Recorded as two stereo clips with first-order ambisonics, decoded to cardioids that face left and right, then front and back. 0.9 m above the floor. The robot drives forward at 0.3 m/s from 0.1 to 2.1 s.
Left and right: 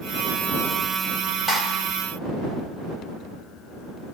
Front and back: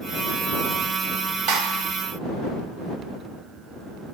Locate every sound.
1.5 s a clap: straight behind, 1.1 m